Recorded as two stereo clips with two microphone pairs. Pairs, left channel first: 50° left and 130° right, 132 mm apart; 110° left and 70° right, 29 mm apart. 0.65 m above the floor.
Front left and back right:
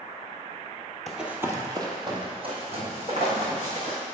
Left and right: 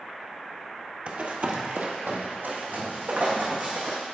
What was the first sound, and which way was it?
Running footsteps, 35° right.